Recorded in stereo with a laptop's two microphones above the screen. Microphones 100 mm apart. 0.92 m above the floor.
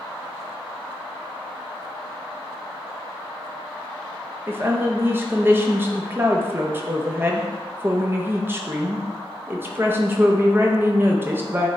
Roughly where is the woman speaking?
Right.